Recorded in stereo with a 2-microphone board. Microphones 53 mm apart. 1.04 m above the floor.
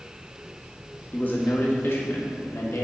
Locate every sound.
1.1 s a man speaking: 40° left (ahead or behind), 1.9 m; by 2.8 s 65° left (ahead or behind), 2.0 m